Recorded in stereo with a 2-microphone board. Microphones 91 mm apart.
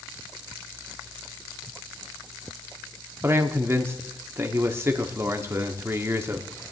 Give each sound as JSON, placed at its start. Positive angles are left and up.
{"t": 3.2, "sound": "a man speaking", "side_deg": -25, "distance_m": 1.3}